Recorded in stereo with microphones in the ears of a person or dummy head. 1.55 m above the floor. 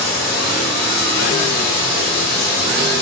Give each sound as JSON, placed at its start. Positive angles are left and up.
{"t": 0.0, "sound": "running water", "side_deg": 0, "distance_m": 1.3}